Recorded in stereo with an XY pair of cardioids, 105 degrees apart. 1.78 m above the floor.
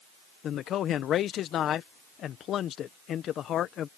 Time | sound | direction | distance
0.4 | a man speaking | 65° left | ?